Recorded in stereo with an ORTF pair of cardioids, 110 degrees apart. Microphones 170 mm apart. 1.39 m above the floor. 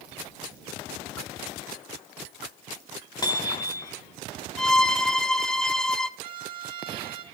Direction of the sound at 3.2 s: 25° left.